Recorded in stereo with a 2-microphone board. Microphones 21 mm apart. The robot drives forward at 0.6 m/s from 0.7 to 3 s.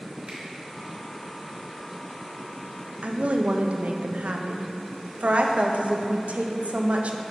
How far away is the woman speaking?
About 0.6 m.